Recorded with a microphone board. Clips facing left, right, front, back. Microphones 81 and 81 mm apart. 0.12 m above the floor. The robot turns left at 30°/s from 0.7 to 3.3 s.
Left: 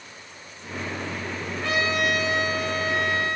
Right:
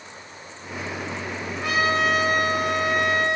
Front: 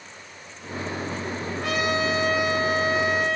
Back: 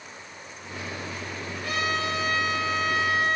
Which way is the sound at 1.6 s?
15° right.